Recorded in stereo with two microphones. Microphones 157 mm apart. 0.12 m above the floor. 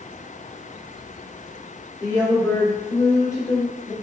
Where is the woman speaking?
20° left (ahead or behind), 1.9 m.